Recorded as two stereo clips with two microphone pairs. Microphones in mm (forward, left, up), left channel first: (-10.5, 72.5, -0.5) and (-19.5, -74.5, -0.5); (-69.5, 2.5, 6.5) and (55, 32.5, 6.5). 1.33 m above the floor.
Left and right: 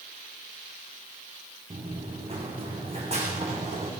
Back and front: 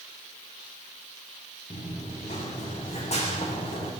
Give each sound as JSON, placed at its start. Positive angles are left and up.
{"t": 1.7, "sound": "running footsteps", "azimuth_deg": -145, "distance_m": 6.0}